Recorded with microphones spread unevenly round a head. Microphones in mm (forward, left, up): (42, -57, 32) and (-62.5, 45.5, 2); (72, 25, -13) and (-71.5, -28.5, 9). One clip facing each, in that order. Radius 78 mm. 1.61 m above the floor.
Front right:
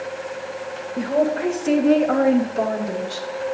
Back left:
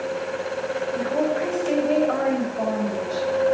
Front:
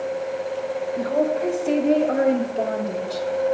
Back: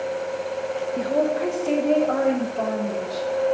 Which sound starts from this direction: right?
A woman speaking, at 1.0 s.